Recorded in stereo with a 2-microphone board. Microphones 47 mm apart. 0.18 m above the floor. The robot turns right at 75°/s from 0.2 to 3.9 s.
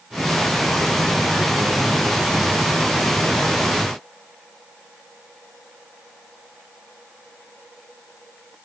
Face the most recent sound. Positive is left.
No sound to turn to.